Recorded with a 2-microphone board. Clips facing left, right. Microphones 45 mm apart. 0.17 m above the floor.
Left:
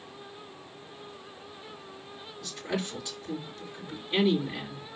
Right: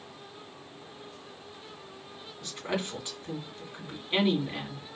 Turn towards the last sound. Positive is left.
turn(degrees=-30)  # may be behind; listen again after turning